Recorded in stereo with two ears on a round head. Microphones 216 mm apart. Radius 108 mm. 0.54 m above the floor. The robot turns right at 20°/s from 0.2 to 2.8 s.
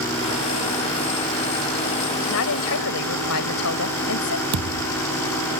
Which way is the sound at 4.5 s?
80° right.